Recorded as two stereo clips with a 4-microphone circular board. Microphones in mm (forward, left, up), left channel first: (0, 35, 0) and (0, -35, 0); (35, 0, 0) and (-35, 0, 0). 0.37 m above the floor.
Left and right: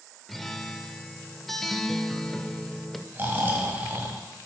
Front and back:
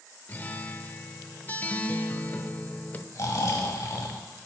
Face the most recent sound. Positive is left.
turn(degrees=-30)